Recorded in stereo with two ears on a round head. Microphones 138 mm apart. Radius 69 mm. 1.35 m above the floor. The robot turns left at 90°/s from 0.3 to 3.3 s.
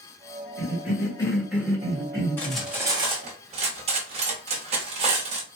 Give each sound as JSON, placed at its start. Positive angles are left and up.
{"t": 0.6, "sound": "a cough", "azimuth_deg": 80, "distance_m": 1.8}
{"t": 2.4, "sound": "cutlery clinking", "side_deg": 15, "distance_m": 0.9}